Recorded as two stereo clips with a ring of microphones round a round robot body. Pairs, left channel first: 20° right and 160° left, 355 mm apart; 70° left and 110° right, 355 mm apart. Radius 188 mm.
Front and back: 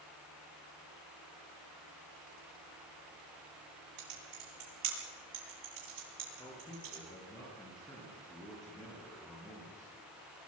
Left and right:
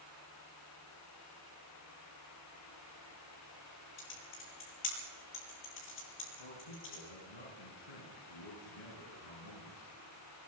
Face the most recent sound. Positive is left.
turn(degrees=60)